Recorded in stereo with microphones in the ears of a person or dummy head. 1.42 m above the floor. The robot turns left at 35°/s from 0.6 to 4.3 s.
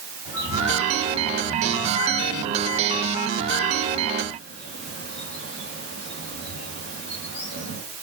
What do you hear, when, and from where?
0.2 s a bird: 15° right (ahead or behind), 6.5 m; by 7.8 s 70° left (ahead or behind), 6.5 m